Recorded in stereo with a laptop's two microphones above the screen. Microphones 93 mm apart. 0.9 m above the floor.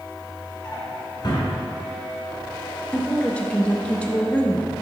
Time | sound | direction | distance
0.6 | a drawer | 60° left (ahead or behind) | 2.5 m
2.9 | a woman speaking | 15° left (ahead or behind) | 0.7 m